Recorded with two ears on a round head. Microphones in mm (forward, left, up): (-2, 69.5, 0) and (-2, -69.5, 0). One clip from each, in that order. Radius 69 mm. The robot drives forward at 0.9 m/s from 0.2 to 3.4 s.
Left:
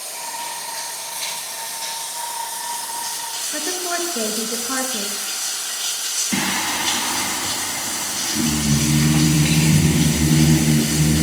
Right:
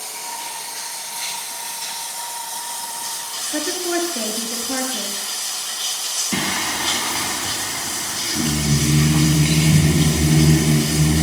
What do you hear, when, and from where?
0.0 s running water: 15° left (ahead or behind), 8 m; by 11.2 s 25° left (ahead or behind), 5.5 m
3.5 s a woman speaking: 80° left, 6.5 m
6.3 s singing: 10° left (ahead or behind), 0.5 m